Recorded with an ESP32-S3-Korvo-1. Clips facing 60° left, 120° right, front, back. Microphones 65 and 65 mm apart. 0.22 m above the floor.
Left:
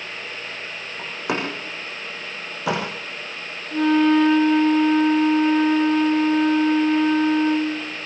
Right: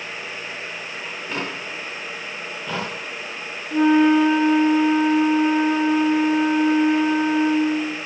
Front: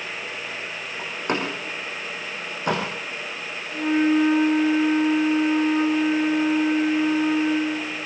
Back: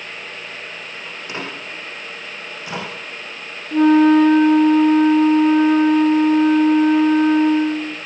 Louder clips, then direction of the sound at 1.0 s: Left 4 dB, front 5 dB; 45° left.